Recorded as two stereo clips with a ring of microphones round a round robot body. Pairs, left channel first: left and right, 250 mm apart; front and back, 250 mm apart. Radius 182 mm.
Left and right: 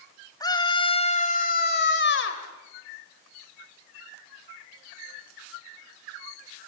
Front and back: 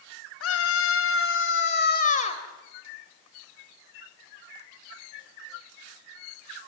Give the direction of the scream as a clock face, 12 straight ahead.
11 o'clock.